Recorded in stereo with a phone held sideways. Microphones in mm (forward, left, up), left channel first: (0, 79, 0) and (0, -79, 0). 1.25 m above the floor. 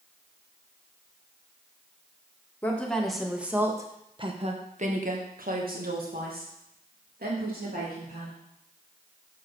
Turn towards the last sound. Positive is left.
turn(degrees=-70)  # may be behind; listen again after turning